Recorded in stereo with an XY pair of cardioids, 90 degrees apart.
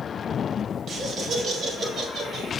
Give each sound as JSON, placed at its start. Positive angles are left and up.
{"t": 0.9, "sound": "laughter", "azimuth_deg": -55, "distance_m": 1.9}